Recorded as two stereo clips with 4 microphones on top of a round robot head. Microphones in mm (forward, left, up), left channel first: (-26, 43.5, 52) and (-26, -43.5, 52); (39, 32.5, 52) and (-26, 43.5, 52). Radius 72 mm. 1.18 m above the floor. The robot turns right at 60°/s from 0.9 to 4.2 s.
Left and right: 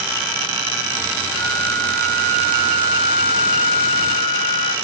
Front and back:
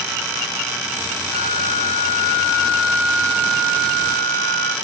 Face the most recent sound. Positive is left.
turn(degrees=165)